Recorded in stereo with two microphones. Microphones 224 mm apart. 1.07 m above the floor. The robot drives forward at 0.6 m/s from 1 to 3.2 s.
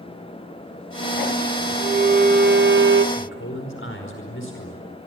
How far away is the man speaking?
About 4.5 m.